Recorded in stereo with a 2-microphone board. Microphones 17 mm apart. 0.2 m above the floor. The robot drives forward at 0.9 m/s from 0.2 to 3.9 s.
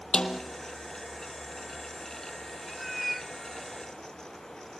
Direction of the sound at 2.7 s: 5° left (ahead or behind).